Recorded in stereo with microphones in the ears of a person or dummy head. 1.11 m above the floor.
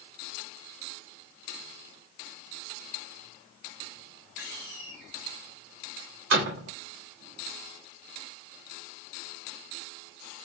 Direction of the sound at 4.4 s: 65° right (ahead or behind).